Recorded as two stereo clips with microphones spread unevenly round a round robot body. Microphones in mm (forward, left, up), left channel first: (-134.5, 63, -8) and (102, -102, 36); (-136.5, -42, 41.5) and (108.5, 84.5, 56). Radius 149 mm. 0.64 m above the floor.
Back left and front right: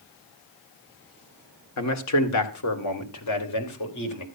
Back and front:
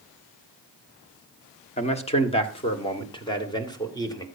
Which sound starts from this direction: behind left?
A man speaking, at 1.8 s.